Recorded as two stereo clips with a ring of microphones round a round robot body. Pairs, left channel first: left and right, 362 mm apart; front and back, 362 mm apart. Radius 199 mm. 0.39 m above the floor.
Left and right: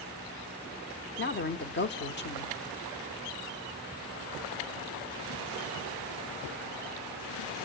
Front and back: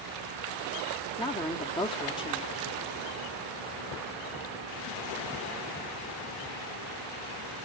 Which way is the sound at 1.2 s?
65° left.